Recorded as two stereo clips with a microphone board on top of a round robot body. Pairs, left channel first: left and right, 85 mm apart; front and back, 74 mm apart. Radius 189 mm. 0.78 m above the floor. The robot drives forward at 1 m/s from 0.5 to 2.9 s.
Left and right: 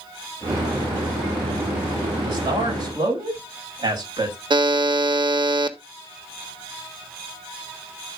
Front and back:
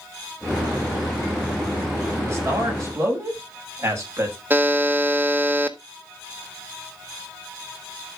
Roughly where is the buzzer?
Behind right.